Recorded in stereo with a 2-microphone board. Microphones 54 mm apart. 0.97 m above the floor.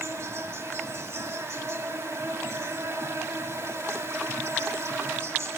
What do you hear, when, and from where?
0.0 s an insect: 60° right (ahead or behind), 2.0 m